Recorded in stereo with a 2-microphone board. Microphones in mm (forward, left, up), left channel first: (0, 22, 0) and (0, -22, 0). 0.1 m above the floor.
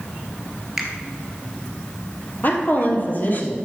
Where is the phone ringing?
I don't hear a phone ringing.